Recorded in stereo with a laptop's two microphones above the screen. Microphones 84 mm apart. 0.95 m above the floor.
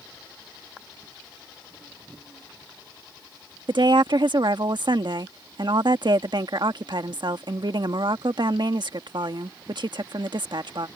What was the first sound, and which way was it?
A woman speaking, 60° right (ahead or behind).